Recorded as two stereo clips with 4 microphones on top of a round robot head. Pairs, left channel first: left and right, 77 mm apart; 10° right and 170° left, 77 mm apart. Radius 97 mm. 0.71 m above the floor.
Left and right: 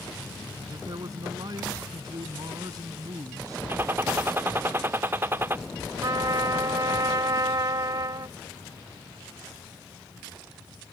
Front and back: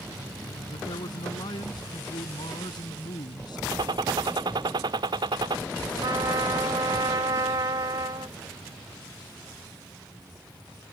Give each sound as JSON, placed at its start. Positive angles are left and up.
{"t": 0.7, "sound": "a man speaking", "azimuth_deg": -40}
{"t": 3.7, "sound": "a gunshot", "azimuth_deg": -155}
{"t": 6.0, "sound": "a trumpet", "azimuth_deg": -135}